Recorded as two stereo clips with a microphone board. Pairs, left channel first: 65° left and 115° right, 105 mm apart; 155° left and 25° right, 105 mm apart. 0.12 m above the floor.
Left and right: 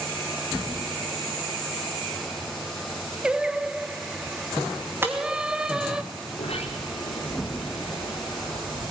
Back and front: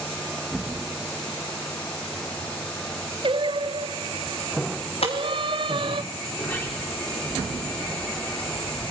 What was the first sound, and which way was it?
Singing, 30° right.